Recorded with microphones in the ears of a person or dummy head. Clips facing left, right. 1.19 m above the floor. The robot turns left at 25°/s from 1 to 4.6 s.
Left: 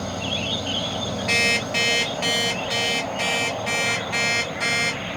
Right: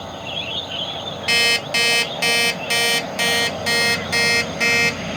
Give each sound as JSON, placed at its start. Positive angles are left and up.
{"t": 0.0, "sound": "an insect", "azimuth_deg": 35, "distance_m": 0.9}
{"t": 1.3, "sound": "an alarm clock", "azimuth_deg": -50, "distance_m": 1.2}